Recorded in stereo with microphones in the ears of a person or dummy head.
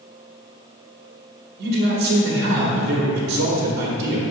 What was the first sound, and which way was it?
A man speaking, 55° right (ahead or behind).